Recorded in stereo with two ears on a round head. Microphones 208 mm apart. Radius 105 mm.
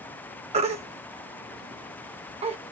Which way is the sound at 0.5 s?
30° right (ahead or behind).